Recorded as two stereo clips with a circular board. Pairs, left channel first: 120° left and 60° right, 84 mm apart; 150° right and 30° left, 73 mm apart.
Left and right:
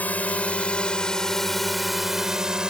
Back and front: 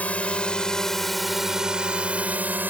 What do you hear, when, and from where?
0.0 s a drone: 165° left; by 2.7 s 10° left